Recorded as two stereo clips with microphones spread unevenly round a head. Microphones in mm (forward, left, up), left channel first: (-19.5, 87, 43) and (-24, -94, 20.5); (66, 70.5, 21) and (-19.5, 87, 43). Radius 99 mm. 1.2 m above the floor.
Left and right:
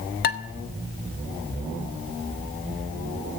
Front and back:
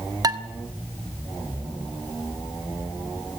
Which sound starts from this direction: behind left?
Dishes clattering, at 0.2 s.